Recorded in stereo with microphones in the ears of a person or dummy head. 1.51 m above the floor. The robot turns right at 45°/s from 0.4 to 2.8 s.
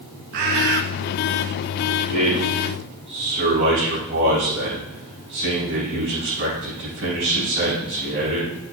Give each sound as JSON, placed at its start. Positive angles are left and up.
{"t": 0.3, "sound": "a bird", "side_deg": -40, "distance_m": 0.8}
{"t": 2.1, "sound": "a man speaking", "azimuth_deg": -150, "distance_m": 4.5}